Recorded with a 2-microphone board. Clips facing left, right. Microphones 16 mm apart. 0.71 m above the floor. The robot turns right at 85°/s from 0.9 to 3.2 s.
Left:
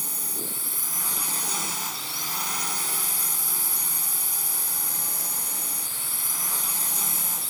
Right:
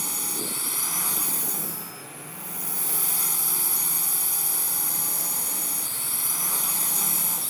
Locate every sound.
0.0 s a drone: 15° right; by 7.5 s straight behind